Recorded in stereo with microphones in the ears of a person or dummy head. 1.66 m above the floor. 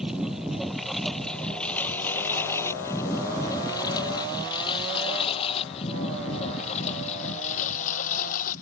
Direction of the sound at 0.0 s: 5° right (ahead or behind).